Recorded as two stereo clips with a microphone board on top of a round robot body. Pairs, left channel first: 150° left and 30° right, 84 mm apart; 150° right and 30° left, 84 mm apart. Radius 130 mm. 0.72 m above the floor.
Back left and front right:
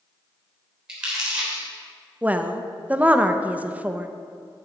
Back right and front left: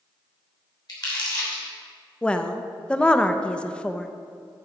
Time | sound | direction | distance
0.9 | crumpling | 105° right | 3 m
2.2 | a woman speaking | 85° right | 0.7 m